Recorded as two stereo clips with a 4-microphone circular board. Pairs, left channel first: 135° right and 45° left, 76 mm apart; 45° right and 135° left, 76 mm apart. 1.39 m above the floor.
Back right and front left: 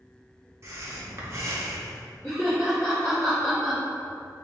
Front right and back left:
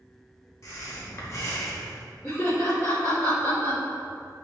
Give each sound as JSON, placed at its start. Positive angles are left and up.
{"t": 0.6, "sound": "breathing", "azimuth_deg": 0, "distance_m": 0.6}
{"t": 2.2, "sound": "laughter", "azimuth_deg": -85, "distance_m": 1.6}